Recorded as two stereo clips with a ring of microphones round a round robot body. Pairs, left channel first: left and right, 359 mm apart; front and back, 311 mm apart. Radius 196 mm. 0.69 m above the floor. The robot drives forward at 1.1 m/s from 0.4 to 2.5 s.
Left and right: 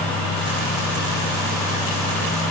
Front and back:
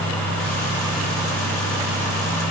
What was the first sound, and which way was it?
Only background noise.